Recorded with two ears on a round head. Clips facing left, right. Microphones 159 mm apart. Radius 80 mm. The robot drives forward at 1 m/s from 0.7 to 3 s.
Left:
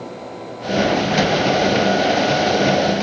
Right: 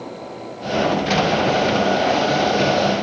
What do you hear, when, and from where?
Only background noise.